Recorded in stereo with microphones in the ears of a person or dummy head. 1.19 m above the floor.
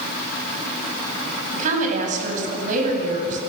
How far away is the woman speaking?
About 8 m.